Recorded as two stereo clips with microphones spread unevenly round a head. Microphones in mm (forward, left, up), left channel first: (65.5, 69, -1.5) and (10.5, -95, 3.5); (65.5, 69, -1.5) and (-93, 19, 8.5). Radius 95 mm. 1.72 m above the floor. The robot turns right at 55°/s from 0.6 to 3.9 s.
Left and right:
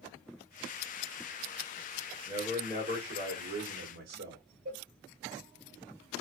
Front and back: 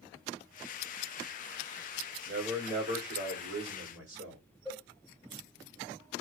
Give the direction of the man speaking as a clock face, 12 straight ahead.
6 o'clock.